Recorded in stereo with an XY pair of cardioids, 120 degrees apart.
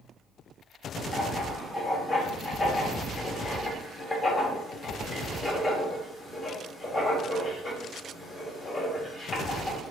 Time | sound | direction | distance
1.1 | writing | 30° left | 1.4 m